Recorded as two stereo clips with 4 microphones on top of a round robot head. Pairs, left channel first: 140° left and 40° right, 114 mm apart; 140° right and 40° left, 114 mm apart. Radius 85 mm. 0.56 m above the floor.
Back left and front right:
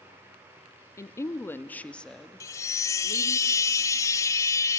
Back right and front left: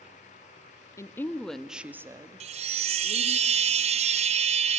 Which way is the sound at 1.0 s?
Straight behind.